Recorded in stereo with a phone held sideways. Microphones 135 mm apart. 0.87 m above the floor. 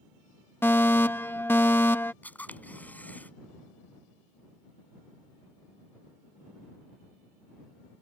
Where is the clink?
No clink in this recording.